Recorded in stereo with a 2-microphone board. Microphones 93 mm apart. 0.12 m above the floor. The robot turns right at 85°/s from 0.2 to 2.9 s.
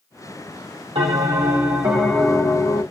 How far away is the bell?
About 2.5 m.